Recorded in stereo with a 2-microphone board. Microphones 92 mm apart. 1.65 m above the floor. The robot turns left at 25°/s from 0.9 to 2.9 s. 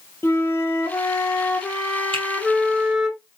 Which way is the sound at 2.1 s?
80° right.